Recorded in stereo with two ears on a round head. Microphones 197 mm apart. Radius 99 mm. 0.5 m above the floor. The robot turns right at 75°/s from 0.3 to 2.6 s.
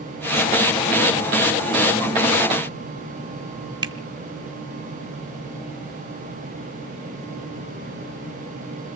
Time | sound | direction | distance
3.8 | a finger snap | 20° right (ahead or behind) | 1.0 m